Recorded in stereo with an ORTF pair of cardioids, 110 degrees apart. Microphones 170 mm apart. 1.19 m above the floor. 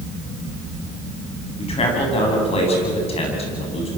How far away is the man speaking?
About 9.5 m.